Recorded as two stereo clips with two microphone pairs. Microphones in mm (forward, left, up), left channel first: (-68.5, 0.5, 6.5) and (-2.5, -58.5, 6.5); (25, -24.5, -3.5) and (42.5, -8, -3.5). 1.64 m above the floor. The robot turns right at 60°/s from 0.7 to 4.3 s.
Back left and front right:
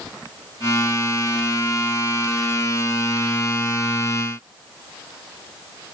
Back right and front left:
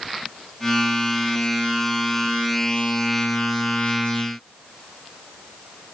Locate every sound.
Only background noise.